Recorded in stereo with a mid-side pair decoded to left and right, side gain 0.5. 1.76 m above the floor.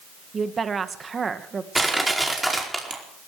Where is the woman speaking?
35° right, 2 m.